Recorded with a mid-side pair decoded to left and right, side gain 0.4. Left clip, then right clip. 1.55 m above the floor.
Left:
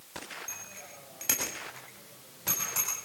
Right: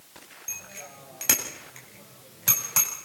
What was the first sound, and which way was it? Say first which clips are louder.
A bicycle bell: right 4 dB; 40° right.